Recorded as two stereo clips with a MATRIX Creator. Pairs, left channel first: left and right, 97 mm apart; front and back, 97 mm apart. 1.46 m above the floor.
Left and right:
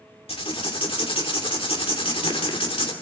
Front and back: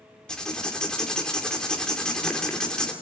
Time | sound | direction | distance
0.3 | writing | 80° left | 2.5 m